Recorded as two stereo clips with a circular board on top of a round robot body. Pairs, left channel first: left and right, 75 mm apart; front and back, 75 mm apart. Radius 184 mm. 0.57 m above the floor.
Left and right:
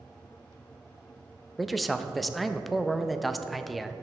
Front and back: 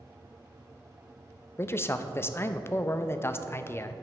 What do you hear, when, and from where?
1.6 s a man speaking: straight ahead, 0.6 m